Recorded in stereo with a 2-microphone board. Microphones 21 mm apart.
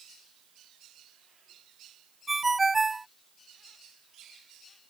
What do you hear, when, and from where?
2.3 s a ringtone: 10° right (ahead or behind)